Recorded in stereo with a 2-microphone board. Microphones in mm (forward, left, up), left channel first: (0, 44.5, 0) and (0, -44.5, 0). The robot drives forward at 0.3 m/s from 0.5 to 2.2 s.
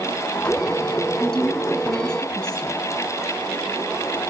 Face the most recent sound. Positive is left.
turn(degrees=10)  # may be behind; listen again after turning